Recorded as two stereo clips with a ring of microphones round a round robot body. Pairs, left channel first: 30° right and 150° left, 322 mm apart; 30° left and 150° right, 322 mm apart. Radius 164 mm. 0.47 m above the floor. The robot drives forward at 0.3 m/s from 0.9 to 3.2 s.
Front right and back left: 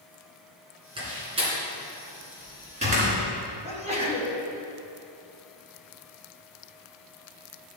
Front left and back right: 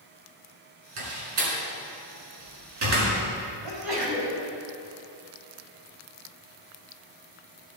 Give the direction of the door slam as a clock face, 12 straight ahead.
4 o'clock.